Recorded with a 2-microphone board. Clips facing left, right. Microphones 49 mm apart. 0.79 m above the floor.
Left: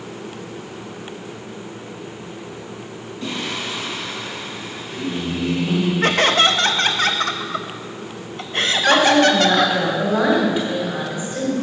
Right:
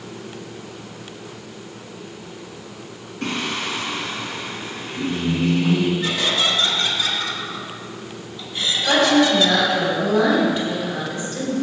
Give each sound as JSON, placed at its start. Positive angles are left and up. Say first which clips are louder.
{"t": 3.2, "sound": "singing", "louder": "right 2 dB", "side_deg": -65, "distance_m": 1.8}
{"t": 6.0, "sound": "laughter", "louder": "left 6 dB", "side_deg": 55, "distance_m": 0.7}
{"t": 8.9, "sound": "a woman speaking", "louder": "left 2 dB", "side_deg": 15, "distance_m": 3.0}